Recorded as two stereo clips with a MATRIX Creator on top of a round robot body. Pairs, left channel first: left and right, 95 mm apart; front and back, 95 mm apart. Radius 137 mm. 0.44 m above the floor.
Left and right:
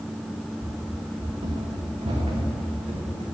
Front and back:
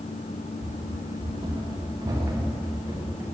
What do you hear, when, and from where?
0.6 s running footsteps: 145° right, 2 m; by 3.2 s 110° right, 5.5 m